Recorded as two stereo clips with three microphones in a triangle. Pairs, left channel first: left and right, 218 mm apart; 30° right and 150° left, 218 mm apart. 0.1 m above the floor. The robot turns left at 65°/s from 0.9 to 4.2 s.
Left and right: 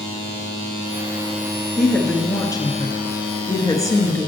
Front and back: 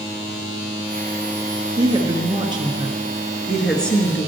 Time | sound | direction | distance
1.8 | a woman speaking | straight behind | 1.2 m